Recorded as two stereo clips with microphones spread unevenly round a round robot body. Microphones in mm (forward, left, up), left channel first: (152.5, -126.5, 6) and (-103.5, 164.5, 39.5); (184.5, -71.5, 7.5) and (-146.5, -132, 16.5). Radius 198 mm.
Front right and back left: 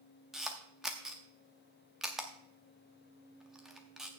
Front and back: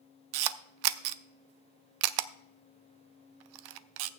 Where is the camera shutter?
140° right, 0.5 m.